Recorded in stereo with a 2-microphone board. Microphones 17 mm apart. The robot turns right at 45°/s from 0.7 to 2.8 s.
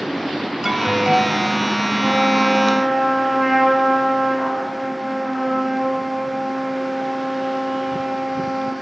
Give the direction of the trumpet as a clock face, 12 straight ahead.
2 o'clock.